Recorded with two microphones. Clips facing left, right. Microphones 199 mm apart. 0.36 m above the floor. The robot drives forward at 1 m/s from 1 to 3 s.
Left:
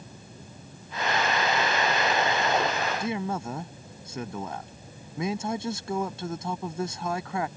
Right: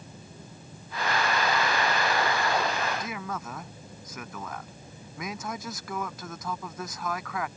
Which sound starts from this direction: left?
A man speaking, at 3.0 s.